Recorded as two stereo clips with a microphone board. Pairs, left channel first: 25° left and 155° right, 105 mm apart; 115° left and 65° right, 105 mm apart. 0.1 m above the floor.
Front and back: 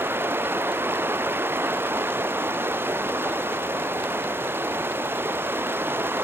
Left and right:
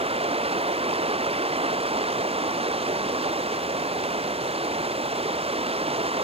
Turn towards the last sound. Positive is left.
turn(degrees=-90)